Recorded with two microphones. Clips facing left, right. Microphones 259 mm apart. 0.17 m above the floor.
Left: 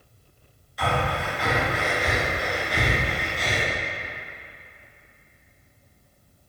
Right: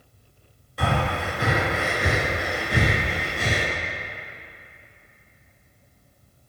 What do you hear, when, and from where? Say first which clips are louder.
0.8 s breathing: right 1 dB; 60° right (ahead or behind), 1.2 m